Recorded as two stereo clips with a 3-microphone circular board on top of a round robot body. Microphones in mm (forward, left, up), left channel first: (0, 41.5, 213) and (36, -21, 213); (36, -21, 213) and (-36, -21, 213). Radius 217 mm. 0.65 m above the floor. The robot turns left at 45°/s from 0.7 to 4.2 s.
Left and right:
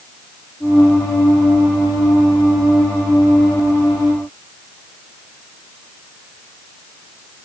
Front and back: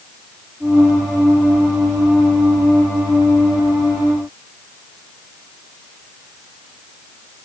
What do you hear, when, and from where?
Only background noise.